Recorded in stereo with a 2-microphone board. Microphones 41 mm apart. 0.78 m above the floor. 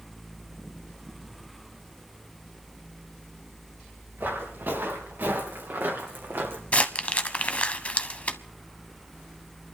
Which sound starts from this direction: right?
Footsteps, at 4.2 s.